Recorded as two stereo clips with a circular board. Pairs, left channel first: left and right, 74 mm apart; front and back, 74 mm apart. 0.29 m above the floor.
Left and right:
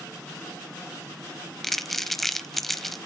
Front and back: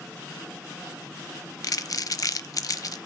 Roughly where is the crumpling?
Ahead.